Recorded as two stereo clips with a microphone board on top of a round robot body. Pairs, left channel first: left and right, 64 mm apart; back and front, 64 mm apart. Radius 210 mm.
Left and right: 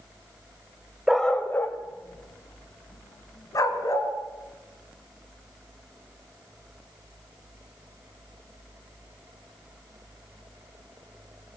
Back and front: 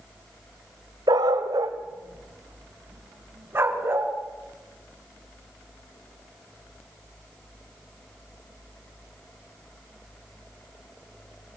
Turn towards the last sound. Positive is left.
turn(degrees=55)